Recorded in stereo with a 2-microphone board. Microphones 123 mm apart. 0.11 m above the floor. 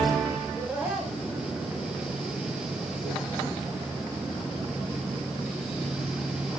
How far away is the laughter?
About 8 m.